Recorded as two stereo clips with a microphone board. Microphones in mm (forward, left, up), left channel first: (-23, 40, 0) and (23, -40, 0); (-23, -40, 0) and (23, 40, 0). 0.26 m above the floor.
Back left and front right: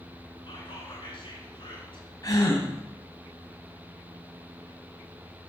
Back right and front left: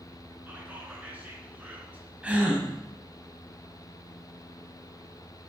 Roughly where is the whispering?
Behind left.